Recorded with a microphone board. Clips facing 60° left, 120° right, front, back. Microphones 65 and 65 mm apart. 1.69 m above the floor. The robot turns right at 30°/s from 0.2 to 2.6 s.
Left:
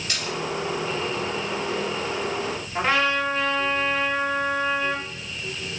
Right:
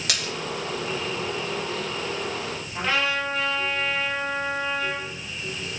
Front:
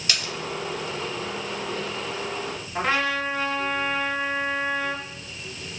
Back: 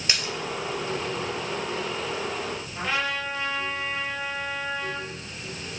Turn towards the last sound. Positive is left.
turn(degrees=5)